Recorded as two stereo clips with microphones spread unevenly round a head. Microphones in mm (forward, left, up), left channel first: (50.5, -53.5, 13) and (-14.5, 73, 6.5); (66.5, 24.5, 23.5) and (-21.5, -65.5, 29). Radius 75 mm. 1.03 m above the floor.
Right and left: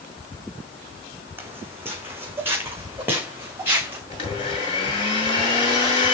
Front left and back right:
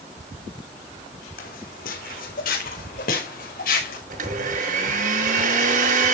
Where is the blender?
120° right, 7 m.